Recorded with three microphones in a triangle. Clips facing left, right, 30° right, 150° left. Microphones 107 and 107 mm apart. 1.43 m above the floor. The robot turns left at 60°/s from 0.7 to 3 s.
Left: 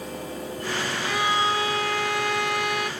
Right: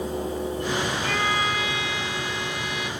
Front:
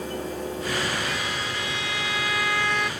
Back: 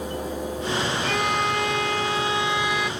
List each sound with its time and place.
1.0 s a violin: 175° left; by 2.9 s 60° left